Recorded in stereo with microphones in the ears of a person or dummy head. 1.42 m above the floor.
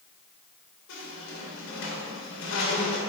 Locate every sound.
0.9 s a squeak: 70° left (ahead or behind), 2 m